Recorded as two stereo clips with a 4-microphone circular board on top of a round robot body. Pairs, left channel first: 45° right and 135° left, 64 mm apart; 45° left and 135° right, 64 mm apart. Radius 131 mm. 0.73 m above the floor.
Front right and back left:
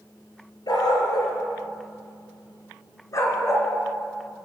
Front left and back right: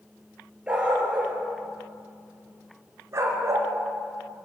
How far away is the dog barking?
About 4.5 m.